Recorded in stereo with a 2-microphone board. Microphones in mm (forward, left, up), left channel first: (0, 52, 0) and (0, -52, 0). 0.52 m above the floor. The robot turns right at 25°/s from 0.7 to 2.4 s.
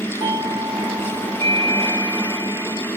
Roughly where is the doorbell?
Behind right.